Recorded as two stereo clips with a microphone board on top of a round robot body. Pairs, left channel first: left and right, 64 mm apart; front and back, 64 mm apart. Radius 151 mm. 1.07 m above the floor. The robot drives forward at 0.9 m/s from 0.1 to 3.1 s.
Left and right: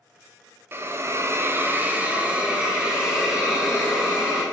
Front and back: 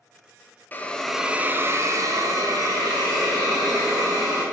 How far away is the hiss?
About 0.8 m.